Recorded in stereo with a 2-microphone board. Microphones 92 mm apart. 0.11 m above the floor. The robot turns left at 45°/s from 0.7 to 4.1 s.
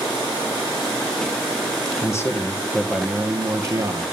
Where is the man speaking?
45° left, 2.5 m; by 4.0 s 50° right, 2.5 m.